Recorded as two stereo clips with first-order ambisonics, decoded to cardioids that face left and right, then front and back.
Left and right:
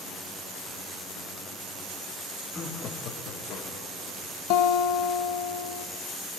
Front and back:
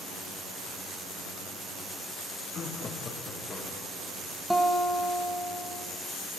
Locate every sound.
2.5 s laughter: 15° left, 0.7 m; by 4.1 s 65° left, 1.9 m
4.5 s a guitar: 85° left, 1.0 m